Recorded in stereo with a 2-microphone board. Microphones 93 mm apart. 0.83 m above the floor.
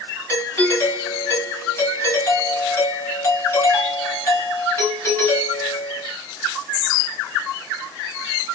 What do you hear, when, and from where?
0.3 s a doorbell: 30° left (ahead or behind), 1.3 m